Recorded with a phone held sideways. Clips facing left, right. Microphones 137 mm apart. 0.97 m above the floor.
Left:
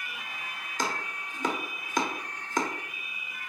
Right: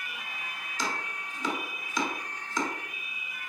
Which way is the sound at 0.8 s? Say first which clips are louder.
Left 2 dB; 55° left (ahead or behind).